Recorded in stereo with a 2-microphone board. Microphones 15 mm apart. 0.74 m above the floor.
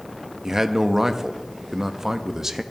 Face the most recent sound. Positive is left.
turn(degrees=-30)  # may be behind; listen again after turning